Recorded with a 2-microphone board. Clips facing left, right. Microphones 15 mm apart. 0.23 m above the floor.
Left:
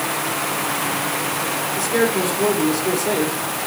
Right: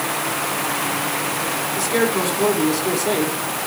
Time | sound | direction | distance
1.8 | a man speaking | 40° right (ahead or behind) | 2.5 m